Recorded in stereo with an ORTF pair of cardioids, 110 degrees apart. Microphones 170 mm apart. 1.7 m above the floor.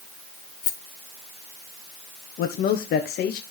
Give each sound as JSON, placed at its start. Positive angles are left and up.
{"t": 0.6, "sound": "a rattle", "azimuth_deg": 55, "distance_m": 4.5}
{"t": 2.4, "sound": "a man speaking", "azimuth_deg": 65, "distance_m": 1.4}